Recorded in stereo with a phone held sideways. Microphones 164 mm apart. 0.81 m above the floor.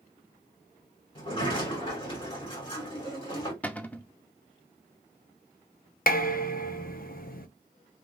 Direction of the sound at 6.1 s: 60° left (ahead or behind).